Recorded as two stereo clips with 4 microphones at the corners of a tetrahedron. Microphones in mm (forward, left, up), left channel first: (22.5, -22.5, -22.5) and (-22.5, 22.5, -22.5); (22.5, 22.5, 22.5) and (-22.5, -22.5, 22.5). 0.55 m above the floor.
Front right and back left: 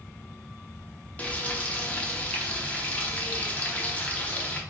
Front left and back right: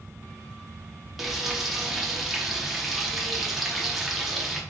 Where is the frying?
50° right, 0.6 m.